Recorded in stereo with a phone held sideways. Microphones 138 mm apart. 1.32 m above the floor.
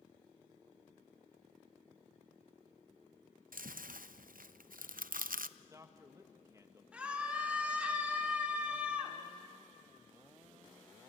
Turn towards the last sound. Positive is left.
turn(degrees=-10)  # may be behind; listen again after turning